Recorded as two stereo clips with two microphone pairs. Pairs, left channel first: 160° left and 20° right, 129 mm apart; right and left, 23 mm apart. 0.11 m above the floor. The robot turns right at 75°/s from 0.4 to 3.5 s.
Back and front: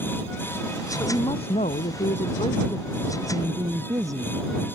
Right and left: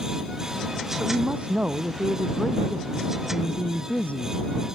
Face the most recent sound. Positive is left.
turn(degrees=-85)